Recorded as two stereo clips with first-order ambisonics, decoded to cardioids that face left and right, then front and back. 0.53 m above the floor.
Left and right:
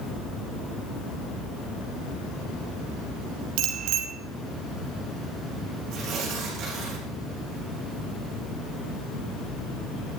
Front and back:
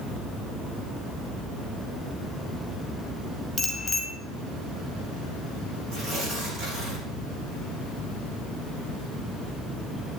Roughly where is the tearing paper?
Behind right.